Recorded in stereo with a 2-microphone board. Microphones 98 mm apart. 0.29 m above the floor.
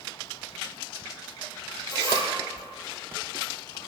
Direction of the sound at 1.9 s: 30° left (ahead or behind).